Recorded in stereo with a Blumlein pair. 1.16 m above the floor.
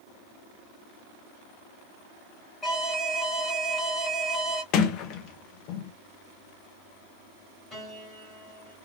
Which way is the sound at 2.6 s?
10° left.